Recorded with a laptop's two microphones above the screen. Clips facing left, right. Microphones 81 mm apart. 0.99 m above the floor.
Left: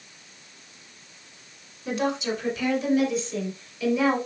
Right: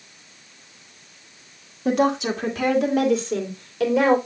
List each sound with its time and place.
1.9 s a woman speaking: 75° right (ahead or behind), 1.7 m; by 4.2 s 80° right, 3 m